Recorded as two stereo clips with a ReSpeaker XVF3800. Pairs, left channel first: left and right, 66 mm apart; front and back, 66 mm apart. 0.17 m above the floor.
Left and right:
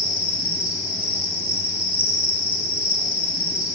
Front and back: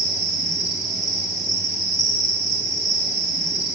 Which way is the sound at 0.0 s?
160° right.